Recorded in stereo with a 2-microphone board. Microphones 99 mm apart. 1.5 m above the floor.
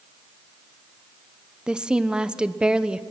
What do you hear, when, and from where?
1.7 s a woman speaking: 10° right (ahead or behind), 1.0 m